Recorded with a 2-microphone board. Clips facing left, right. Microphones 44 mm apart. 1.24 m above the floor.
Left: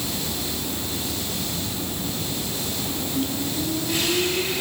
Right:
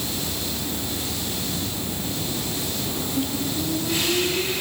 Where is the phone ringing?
No phone ringing in this recording.